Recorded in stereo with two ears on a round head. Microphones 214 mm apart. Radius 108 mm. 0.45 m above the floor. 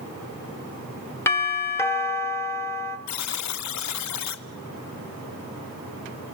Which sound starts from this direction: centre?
A doorbell, at 1.3 s.